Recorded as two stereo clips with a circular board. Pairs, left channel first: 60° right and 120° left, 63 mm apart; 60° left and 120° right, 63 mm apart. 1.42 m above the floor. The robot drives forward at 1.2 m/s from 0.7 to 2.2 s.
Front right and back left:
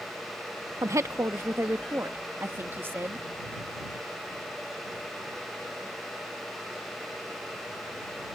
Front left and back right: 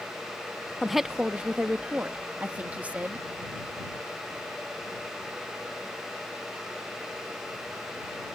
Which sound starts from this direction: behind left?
A woman speaking, at 0.8 s.